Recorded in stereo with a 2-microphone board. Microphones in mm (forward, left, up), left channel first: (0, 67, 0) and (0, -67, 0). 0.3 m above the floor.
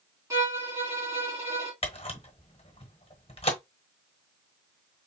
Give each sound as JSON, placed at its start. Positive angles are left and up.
{"t": 0.3, "sound": "a violin", "side_deg": -25, "distance_m": 3.0}
{"t": 1.8, "sound": "a camera shutter", "side_deg": 45, "distance_m": 1.2}